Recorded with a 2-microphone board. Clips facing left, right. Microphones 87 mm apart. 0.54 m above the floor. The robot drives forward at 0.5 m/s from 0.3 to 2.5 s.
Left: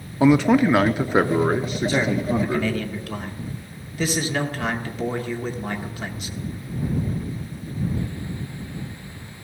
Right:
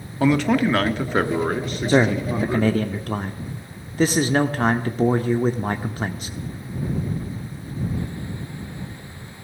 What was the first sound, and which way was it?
A man speaking, 15° left (ahead or behind).